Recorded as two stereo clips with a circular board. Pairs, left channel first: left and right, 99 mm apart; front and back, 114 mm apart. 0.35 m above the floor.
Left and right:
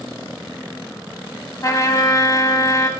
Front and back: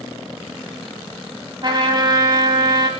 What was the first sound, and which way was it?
A trumpet, 140° left.